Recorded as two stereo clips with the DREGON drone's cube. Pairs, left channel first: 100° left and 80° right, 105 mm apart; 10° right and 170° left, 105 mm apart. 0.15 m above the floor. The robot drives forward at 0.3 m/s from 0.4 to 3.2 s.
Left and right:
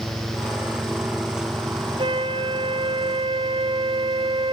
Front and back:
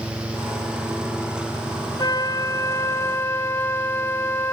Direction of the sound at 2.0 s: 60° right.